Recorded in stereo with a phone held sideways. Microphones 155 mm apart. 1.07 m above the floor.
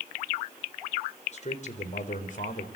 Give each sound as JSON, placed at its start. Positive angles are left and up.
{"t": 1.3, "sound": "a man speaking", "side_deg": 50, "distance_m": 4.0}